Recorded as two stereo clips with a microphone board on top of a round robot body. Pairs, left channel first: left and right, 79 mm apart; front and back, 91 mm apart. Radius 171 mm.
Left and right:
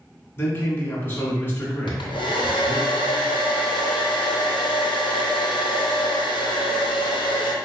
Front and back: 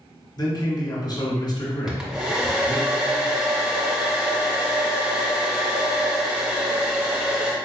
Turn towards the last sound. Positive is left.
turn(degrees=100)